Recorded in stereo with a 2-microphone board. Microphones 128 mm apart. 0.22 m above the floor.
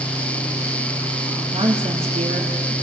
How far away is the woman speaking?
About 2.5 m.